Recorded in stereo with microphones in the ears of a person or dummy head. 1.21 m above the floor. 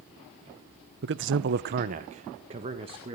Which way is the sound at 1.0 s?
50° right (ahead or behind).